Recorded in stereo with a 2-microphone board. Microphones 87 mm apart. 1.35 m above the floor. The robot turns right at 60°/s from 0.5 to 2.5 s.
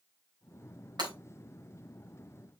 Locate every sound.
1.0 s breaking glass: 55° right (ahead or behind), 3.5 m; by 1.1 s 65° right (ahead or behind), 3.5 m